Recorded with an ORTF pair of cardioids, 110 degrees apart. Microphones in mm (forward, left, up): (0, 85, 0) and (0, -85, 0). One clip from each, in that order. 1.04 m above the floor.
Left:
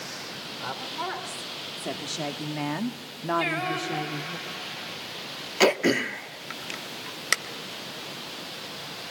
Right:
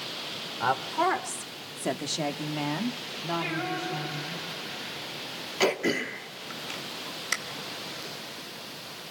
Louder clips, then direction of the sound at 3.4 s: Left 5 dB; 65° left.